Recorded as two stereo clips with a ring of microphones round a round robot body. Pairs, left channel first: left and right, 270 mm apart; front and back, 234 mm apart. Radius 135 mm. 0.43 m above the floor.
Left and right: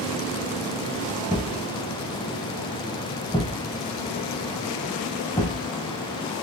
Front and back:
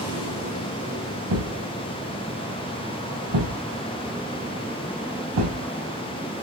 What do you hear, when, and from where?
1.3 s a thud: 170° left, 4 m